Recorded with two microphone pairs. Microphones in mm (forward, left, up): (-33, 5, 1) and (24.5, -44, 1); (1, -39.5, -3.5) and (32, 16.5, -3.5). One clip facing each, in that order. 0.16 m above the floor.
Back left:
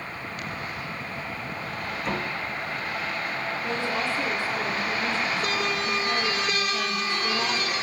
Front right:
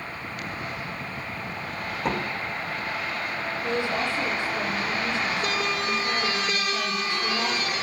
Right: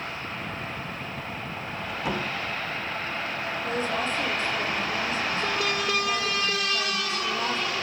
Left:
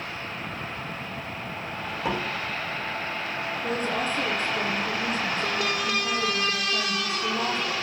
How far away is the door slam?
About 5.5 m.